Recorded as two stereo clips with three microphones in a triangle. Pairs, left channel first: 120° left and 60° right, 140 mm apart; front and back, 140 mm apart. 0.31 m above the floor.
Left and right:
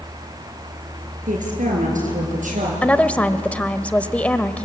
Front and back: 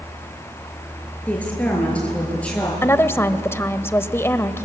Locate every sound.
1.3 s a woman speaking: 80° right, 6.5 m
2.8 s a woman speaking: 50° left, 1.1 m